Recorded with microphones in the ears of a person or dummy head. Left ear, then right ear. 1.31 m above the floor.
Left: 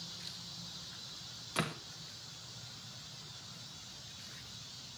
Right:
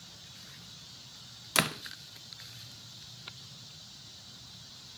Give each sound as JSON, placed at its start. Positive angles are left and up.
{"t": 1.6, "sound": "a door slam", "side_deg": -70, "distance_m": 1.0}